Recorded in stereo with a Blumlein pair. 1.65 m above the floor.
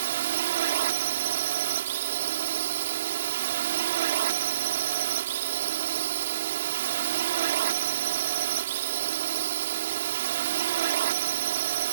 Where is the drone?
60° right.